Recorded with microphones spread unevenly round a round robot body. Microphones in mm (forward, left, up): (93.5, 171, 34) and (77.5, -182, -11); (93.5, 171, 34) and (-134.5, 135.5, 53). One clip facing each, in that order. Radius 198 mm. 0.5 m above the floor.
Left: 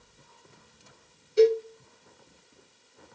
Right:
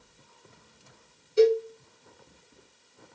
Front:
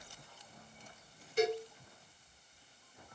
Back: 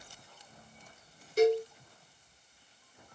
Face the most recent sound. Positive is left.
turn(degrees=-175)